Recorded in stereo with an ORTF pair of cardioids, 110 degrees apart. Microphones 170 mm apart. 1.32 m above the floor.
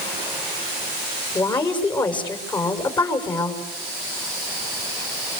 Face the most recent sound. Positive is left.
turn(degrees=25)